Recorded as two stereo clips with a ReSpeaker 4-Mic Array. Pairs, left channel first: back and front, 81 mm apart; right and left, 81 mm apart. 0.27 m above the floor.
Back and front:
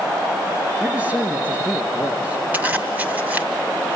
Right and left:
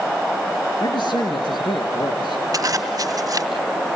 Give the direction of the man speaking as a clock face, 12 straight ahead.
2 o'clock.